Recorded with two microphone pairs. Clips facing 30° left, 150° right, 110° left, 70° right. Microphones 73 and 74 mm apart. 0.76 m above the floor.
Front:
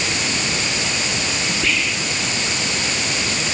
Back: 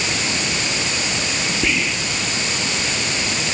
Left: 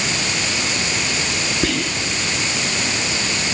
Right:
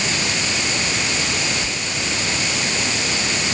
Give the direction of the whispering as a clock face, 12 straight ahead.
8 o'clock.